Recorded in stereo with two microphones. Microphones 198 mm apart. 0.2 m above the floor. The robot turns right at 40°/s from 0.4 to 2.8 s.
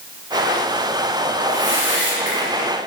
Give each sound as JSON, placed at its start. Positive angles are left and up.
{"t": 1.4, "sound": "a whoosh", "azimuth_deg": -115, "distance_m": 3.5}